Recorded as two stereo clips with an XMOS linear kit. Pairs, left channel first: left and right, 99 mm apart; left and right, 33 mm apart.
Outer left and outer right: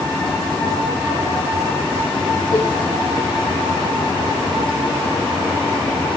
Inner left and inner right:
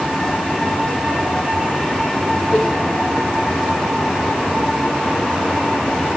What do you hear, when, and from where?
2.5 s a cowbell: 55° right (ahead or behind), 9 m